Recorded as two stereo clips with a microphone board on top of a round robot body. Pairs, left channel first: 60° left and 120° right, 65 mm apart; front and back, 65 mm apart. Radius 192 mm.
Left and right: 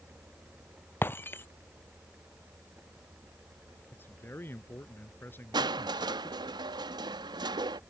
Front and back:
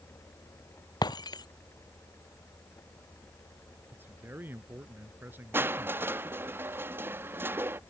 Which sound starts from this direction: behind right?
Crushing, at 5.5 s.